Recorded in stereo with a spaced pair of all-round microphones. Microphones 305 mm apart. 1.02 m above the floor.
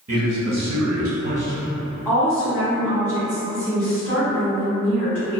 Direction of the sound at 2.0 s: 5° left (ahead or behind).